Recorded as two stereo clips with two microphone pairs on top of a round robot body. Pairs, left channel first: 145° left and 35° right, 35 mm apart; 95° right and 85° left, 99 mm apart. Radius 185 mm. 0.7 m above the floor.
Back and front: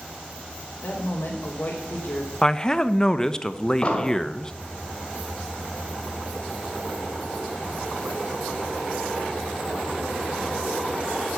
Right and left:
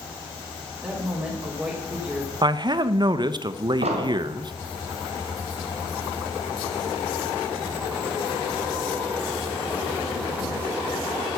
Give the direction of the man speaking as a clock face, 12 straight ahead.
9 o'clock.